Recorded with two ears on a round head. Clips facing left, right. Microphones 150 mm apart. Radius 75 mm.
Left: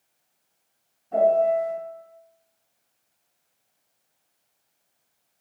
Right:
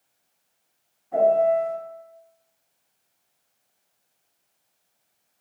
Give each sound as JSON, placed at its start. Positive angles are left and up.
{"t": 1.1, "sound": "a piano", "side_deg": 40, "distance_m": 1.8}